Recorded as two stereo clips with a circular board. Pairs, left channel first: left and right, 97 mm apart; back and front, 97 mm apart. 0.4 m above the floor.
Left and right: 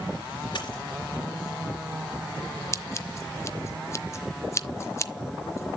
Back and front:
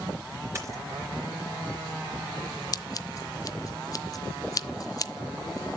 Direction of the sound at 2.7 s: 140° left.